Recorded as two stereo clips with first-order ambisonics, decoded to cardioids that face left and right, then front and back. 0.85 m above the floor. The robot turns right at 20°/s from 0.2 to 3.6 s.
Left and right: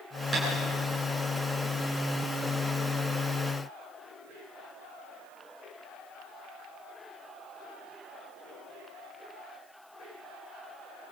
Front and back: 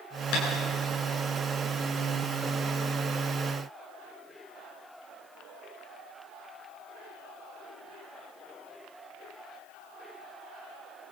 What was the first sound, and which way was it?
Tapping, 10° right.